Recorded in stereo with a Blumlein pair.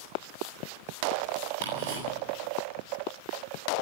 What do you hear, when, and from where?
1.6 s ticking: 55° right, 9 m